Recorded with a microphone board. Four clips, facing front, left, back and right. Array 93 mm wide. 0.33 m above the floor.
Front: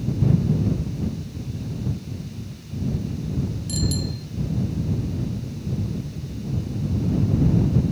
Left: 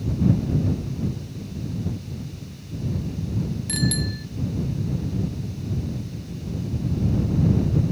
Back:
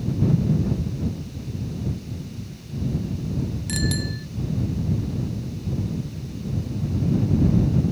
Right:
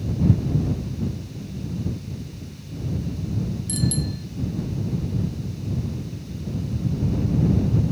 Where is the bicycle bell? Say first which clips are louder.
Even, back 1 dB; 140° left.